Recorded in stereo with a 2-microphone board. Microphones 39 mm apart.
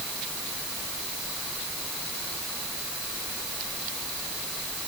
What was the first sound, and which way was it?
Only background noise.